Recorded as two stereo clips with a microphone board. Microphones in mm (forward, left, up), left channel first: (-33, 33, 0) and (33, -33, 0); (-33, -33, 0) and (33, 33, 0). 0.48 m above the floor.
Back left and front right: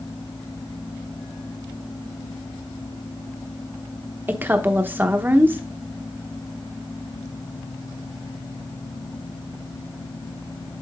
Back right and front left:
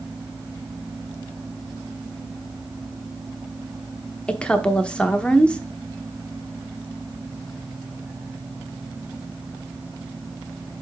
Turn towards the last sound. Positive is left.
turn(degrees=-75)